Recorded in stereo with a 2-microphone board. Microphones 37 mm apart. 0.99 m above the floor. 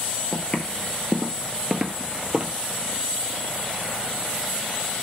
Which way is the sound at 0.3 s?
45° left (ahead or behind).